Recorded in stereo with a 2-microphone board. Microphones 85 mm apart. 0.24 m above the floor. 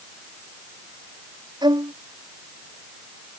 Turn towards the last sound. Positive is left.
turn(degrees=-60)  # may be behind; listen again after turning